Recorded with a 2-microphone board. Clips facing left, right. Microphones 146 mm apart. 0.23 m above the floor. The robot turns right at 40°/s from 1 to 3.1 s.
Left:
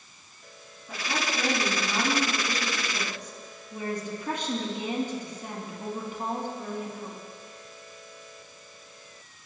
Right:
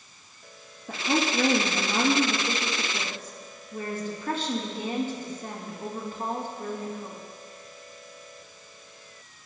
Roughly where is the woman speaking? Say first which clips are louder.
Right 6 dB; ahead right.